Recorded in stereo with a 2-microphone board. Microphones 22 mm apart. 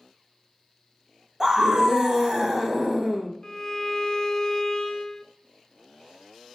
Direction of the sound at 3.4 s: 25° left (ahead or behind).